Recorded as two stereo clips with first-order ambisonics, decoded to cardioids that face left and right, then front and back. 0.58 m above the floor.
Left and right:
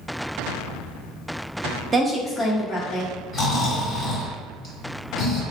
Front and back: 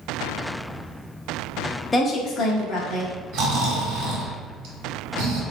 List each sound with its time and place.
1.9 s a woman speaking: 55° right, 0.6 m; by 3.1 s 35° left, 1.4 m
3.3 s snoring: 155° left, 1.4 m